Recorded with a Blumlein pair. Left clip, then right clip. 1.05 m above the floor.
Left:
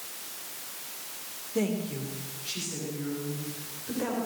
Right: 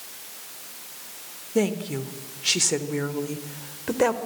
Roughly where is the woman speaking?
Right.